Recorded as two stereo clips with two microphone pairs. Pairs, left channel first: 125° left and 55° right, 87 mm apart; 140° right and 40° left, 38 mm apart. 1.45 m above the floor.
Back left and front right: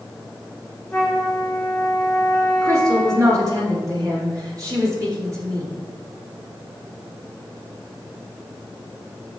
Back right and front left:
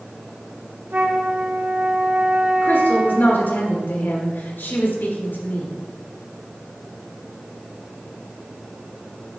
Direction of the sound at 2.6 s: 105° right.